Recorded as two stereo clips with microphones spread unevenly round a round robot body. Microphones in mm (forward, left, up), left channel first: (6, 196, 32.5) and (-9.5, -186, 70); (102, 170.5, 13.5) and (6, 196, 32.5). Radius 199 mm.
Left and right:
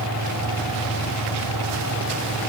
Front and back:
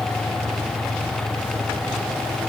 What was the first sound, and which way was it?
Only background noise.